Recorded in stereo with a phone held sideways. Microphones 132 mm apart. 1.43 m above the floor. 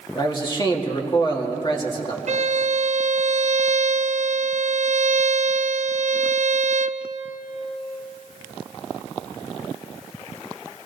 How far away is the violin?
About 0.5 m.